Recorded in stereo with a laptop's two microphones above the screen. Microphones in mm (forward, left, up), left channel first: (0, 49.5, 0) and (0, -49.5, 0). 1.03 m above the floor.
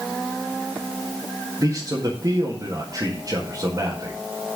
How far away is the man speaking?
About 1.9 m.